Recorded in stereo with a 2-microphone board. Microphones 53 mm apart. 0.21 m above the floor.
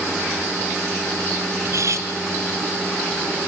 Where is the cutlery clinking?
65° right (ahead or behind), 1.5 m.